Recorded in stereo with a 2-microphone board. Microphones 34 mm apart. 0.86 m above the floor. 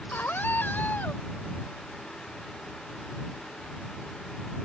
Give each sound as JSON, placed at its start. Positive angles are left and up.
{"t": 0.1, "sound": "a scream", "side_deg": 75}